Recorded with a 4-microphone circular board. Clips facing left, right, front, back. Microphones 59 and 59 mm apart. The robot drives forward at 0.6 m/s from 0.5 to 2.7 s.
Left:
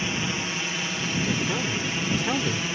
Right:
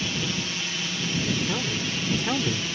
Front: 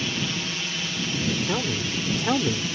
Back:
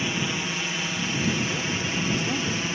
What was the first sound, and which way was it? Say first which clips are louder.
A drone: left 1 dB, back 1 dB; 130° left.